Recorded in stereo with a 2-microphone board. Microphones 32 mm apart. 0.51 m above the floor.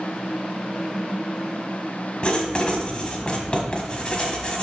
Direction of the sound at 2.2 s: 30° left (ahead or behind).